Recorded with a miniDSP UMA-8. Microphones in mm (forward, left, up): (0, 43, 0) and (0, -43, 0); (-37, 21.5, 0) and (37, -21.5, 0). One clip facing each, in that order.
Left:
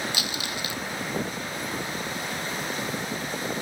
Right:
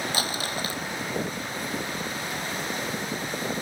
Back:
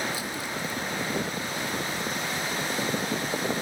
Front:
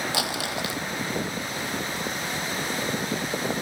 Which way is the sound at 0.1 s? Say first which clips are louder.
Right 3 dB, front 4 dB; 40° right.